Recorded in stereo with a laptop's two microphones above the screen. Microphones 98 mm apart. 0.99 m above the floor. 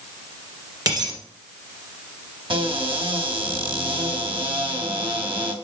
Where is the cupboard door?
60° right (ahead or behind), 1.1 m.